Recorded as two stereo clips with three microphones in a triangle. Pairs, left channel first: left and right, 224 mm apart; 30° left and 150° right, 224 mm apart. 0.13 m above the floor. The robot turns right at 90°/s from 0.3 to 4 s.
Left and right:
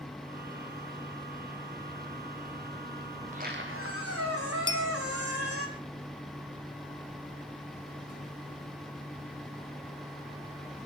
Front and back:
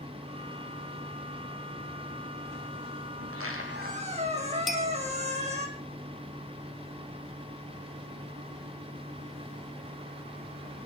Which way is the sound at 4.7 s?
60° right.